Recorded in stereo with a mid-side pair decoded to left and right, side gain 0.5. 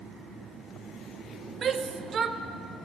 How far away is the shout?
About 0.7 m.